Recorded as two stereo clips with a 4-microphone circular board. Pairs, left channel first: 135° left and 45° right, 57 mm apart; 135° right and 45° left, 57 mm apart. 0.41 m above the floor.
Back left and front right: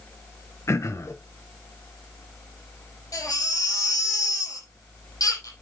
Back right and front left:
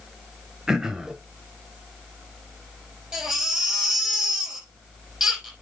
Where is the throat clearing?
125° left, 1.1 m.